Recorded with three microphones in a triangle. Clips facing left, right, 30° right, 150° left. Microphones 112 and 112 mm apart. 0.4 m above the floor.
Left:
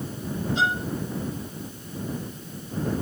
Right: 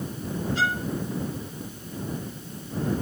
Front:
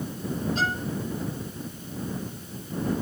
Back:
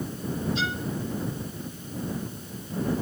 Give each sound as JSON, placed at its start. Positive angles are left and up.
{"t": 0.6, "sound": "a violin", "azimuth_deg": 20}